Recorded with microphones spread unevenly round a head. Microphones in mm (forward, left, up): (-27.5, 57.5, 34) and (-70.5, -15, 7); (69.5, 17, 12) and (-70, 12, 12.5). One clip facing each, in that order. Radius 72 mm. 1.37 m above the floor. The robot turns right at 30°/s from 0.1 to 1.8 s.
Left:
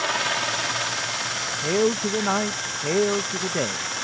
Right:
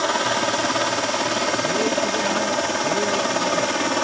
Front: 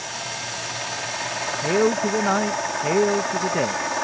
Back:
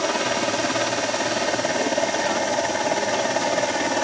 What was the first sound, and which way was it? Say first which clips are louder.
A helicopter: right 5 dB, back 11 dB; 175° right.